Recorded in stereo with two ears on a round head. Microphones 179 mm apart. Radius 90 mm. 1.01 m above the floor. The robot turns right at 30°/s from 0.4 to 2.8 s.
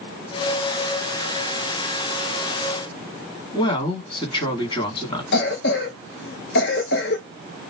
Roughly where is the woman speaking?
Left.